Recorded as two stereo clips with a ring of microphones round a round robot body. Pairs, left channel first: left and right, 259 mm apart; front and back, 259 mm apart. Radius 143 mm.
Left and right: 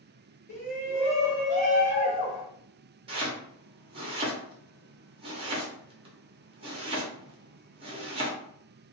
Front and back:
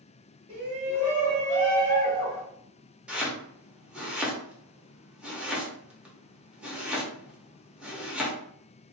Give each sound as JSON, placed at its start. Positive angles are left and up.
{"t": 0.5, "sound": "a shout", "azimuth_deg": 130, "distance_m": 1.2}
{"t": 3.1, "sound": "chopping", "azimuth_deg": -100, "distance_m": 0.7}